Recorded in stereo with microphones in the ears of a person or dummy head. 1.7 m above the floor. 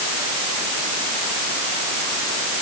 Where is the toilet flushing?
I don't hear a toilet flushing.